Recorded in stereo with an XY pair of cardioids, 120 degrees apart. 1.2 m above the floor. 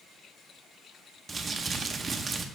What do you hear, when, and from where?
1.3 s crumpling: 30° right, 0.7 m